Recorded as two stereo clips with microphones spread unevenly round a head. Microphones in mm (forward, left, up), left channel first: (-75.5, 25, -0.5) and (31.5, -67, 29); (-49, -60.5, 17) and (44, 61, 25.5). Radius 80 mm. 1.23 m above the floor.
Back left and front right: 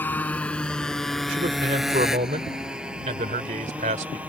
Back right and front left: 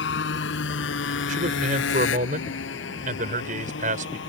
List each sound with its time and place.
0.0 s a motorcycle: 140° right; by 4.3 s 120° right
1.3 s a man speaking: 10° left